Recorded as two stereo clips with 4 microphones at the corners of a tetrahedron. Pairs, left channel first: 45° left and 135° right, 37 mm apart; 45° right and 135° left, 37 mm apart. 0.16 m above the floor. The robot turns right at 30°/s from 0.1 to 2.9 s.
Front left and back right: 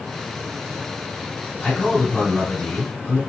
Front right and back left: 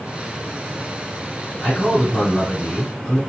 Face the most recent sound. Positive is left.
turn(degrees=20)